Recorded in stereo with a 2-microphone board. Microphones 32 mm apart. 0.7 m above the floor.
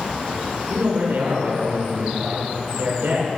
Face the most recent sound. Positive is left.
turn(degrees=-75)  # may be behind; listen again after turning